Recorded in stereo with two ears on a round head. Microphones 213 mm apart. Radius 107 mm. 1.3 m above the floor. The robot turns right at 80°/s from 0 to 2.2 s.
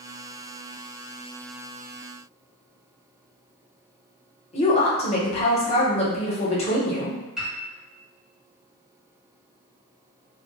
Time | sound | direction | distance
4.5 | a woman speaking | 25° left (ahead or behind) | 0.8 m
7.4 | a piano | 5° right (ahead or behind) | 1.2 m